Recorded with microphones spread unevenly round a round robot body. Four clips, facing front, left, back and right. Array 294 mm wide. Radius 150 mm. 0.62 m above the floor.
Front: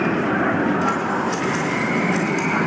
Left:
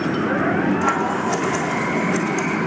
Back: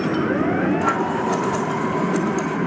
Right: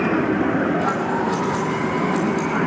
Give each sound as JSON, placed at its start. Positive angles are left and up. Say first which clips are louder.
{"t": 0.8, "sound": "scissors", "louder": "left 1 dB, even", "azimuth_deg": 150, "distance_m": 1.3}